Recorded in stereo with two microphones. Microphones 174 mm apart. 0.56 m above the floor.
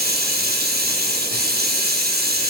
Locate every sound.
0.0 s running water: 60° right (ahead or behind), 7.5 m